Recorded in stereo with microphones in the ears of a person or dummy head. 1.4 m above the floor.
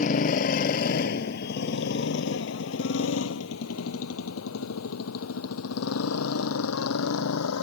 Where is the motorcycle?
40° left (ahead or behind); by 7.6 s 85° left.